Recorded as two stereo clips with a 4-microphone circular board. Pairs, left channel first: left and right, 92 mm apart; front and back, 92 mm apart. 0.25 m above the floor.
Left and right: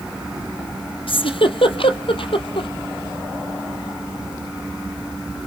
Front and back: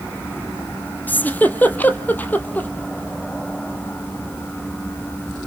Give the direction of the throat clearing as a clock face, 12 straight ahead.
No throat clearing in this recording.